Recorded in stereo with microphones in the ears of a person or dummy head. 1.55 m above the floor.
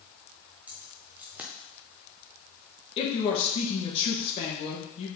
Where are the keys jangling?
10° right (ahead or behind), 0.6 m.